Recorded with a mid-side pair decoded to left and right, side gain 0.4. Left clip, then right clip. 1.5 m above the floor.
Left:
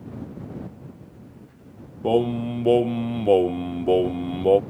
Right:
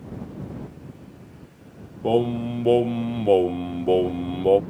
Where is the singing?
10° left.